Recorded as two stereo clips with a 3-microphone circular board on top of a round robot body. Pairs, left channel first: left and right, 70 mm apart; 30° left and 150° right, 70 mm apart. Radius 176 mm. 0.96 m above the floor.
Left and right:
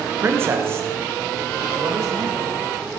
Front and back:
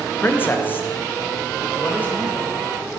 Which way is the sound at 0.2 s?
30° right.